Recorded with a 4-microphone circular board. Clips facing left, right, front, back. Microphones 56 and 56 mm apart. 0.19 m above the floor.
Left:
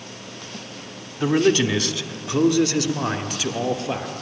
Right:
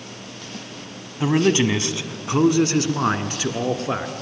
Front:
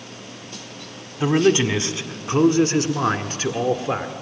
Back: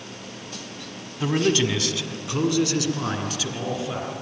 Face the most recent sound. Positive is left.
turn(degrees=-40)